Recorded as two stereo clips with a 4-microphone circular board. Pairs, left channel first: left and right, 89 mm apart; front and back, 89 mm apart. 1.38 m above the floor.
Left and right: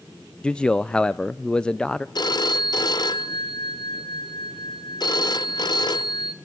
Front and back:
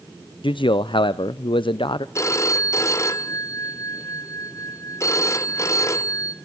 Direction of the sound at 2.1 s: 55° left.